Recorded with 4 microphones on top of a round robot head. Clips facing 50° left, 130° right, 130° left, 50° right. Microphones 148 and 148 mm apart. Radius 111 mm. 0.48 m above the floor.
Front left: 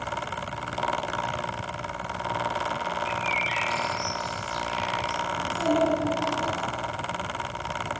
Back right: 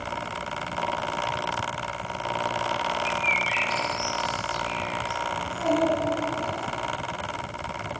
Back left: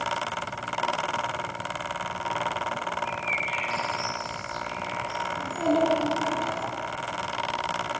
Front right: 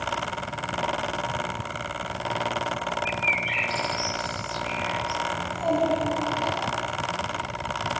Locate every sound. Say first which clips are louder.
3.0 s a bird: back right 1 dB, front right 2 dB; 55° right, 2.5 m
5.4 s a child speaking: even, back left 2 dB; 120° left, 6.5 m